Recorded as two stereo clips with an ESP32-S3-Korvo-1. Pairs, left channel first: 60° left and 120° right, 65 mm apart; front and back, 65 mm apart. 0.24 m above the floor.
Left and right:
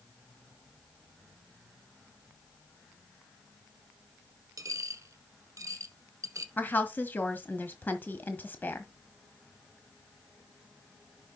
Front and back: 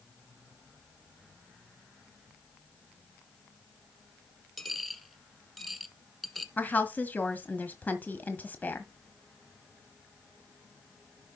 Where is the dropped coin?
90° right, 1.0 m.